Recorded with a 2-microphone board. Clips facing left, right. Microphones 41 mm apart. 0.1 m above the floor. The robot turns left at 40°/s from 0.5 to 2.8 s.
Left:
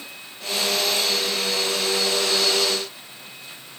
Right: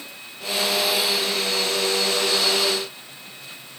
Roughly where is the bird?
No bird in this recording.